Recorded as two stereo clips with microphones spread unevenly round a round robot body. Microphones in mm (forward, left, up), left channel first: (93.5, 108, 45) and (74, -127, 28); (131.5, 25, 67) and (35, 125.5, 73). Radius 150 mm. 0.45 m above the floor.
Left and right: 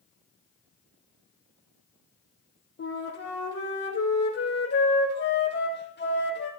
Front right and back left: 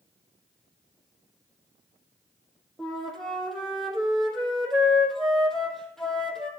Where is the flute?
40° left, 3.5 m.